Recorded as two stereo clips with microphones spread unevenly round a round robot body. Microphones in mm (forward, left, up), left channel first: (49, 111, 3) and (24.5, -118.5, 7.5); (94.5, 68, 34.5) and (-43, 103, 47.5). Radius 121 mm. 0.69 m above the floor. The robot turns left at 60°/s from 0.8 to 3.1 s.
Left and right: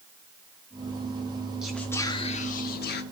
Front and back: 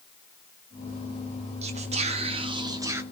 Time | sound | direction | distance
1.6 | whispering | 175° left | 1.2 m